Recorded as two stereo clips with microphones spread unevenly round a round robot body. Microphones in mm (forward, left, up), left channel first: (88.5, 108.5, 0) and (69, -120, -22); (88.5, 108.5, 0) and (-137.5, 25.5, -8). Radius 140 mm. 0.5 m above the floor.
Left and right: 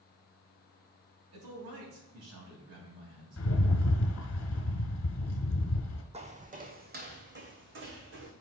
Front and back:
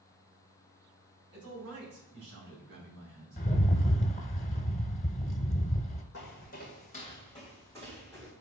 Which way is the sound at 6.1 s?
30° right.